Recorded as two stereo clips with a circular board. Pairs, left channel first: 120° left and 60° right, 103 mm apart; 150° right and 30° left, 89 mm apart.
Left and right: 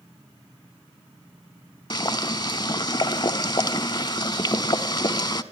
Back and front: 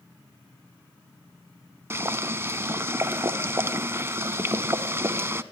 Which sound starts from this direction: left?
Boiling, at 1.9 s.